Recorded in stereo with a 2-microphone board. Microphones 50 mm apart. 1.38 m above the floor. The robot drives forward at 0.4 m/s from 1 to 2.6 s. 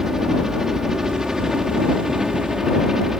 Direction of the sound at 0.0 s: 10° right (ahead or behind).